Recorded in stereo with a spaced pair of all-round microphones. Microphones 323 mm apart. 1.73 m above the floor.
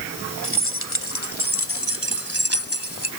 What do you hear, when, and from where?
0.4 s keys jangling: 40° left (ahead or behind); by 3.1 s 45° left (ahead or behind)